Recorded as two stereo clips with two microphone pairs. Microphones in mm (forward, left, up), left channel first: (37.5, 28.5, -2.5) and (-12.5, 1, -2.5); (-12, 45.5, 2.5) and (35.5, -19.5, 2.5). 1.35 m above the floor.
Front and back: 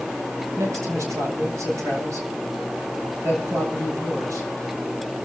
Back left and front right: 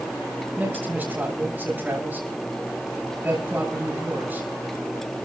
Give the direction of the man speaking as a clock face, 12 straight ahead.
4 o'clock.